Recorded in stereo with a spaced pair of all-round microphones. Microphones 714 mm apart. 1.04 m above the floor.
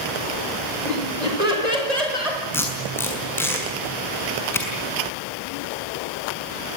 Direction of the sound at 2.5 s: 5° left (ahead or behind).